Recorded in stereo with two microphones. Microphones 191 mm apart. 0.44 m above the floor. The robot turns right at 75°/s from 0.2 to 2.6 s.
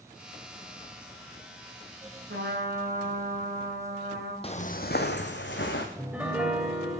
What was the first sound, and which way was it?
A trumpet, 80° right.